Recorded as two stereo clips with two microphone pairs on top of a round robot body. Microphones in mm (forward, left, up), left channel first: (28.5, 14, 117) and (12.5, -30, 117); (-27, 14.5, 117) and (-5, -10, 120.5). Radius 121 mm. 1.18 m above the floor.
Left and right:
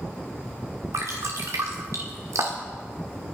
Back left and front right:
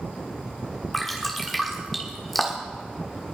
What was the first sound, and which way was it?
Dripping, 140° right.